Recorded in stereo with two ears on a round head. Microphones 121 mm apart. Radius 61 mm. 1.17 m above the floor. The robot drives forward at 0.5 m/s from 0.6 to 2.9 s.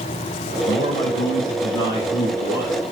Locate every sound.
0.7 s a man speaking: 45° left (ahead or behind), 5.5 m; by 2.8 s 40° left (ahead or behind), 6.5 m